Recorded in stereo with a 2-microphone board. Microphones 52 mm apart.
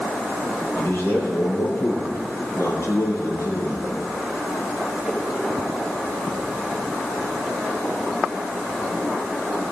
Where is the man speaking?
40° left (ahead or behind), 5 m; by 3.9 s 65° left (ahead or behind), 5.5 m.